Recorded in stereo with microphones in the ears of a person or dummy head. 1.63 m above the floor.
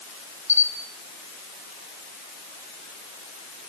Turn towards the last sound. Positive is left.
turn(degrees=10)  # may be behind; listen again after turning